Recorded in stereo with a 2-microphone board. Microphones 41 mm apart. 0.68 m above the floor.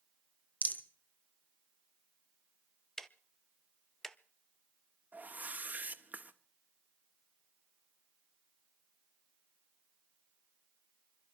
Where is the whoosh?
40° right (ahead or behind), 1.2 m.